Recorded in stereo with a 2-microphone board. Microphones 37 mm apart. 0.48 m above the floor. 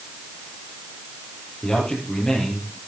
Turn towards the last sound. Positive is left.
turn(degrees=20)  # may be behind; listen again after turning